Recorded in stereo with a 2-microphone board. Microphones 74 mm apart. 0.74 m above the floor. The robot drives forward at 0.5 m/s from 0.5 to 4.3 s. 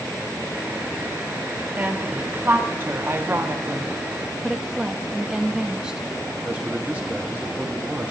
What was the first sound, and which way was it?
A woman speaking, 25° right (ahead or behind).